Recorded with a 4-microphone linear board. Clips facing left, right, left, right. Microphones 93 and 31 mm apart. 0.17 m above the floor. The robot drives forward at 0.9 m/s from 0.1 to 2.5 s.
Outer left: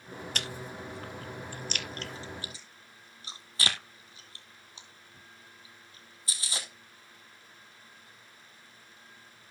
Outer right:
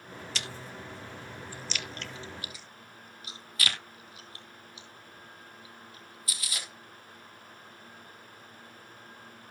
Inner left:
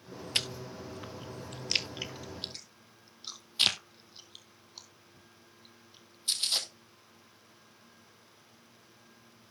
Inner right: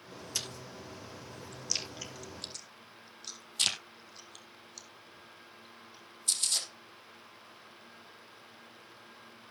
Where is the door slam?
I don't hear a door slam.